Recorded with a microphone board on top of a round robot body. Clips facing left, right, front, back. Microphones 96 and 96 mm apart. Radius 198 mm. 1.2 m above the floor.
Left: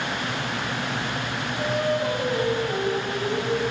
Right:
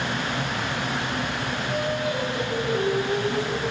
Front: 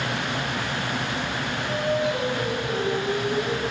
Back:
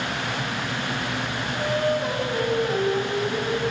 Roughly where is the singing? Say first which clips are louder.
Left 4 dB, back 2 dB; behind left.